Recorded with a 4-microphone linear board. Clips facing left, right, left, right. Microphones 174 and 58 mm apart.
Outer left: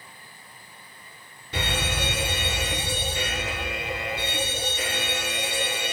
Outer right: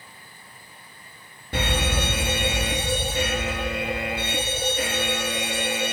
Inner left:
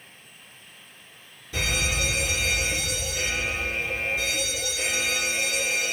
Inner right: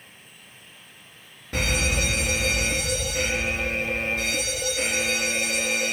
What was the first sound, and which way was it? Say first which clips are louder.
A fire alarm: outer right 4 dB, inner right 2 dB; 50° right (ahead or behind).